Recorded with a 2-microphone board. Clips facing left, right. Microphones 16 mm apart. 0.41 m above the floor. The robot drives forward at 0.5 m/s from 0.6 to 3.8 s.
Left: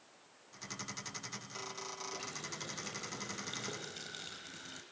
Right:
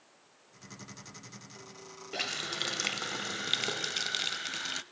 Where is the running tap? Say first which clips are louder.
Right 9 dB; 65° right (ahead or behind), 1.1 m; by 4.8 s 50° right (ahead or behind), 1.3 m.